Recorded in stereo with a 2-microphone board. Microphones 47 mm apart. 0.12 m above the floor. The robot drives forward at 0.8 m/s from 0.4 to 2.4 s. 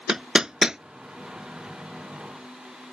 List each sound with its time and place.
0.1 s hammering: 15° right (ahead or behind)